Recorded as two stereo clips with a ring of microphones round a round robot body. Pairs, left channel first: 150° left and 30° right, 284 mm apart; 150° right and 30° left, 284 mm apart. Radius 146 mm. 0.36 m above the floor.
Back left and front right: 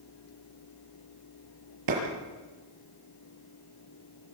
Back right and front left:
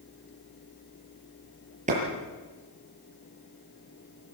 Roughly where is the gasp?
No gasp in this recording.